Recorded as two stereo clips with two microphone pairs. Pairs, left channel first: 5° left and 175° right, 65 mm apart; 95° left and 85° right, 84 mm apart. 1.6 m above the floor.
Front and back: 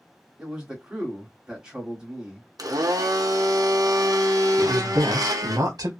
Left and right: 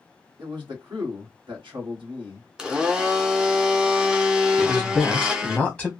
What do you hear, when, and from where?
0.4 s a man speaking: 100° right, 1.5 m
2.6 s a blender: 160° right, 0.6 m
4.6 s a man speaking: 175° right, 0.8 m